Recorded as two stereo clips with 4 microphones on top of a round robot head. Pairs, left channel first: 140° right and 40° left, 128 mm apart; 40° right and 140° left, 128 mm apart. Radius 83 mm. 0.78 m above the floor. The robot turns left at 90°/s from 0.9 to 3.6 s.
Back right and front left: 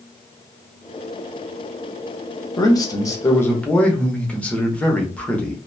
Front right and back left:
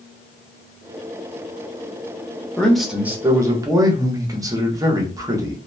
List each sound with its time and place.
2.6 s a man speaking: 115° right, 0.9 m; by 5.6 s 155° left, 0.9 m